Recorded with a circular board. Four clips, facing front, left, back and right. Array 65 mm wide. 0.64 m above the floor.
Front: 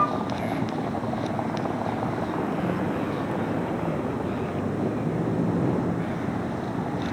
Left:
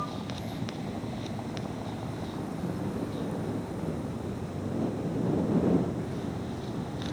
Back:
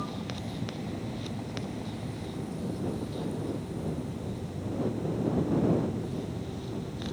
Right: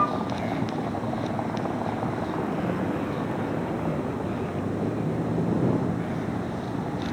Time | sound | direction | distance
0.0 | a vehicle | 40° right | ?